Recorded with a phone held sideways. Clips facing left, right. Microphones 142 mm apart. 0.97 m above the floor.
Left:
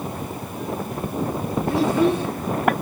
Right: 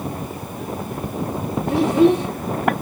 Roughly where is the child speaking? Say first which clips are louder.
Right 5 dB; centre.